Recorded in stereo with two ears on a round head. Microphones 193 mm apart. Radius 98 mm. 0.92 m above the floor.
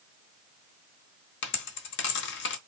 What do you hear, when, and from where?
1.4 s a dropped coin: 60° left (ahead or behind), 1.0 m